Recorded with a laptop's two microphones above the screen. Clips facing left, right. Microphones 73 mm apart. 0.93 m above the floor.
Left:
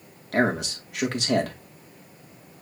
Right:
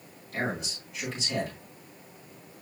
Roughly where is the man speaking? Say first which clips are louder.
Left 9 dB; left.